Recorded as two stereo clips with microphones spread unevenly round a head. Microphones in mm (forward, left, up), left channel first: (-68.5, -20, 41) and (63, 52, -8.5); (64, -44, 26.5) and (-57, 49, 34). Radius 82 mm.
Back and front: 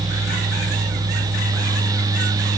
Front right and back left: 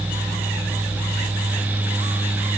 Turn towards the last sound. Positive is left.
No sound to turn to.